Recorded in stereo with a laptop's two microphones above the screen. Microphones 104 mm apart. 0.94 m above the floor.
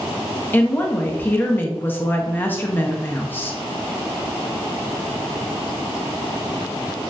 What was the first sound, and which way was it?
A woman speaking, 20° left (ahead or behind).